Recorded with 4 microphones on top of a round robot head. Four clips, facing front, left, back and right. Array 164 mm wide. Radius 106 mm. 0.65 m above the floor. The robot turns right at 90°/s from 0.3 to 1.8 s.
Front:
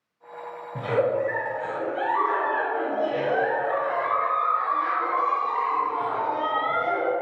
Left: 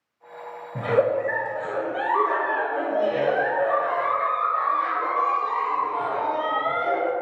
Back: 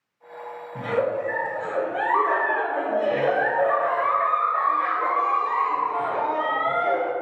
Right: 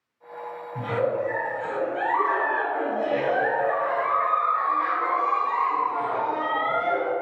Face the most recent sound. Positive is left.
turn(degrees=160)